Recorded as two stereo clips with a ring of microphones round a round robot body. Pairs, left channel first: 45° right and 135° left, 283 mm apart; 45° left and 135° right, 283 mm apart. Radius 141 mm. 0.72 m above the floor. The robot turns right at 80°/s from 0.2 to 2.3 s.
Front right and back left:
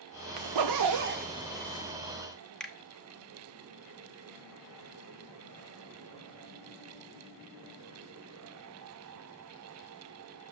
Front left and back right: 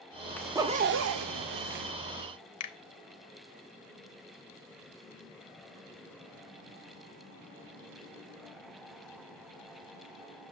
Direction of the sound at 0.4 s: 130° left.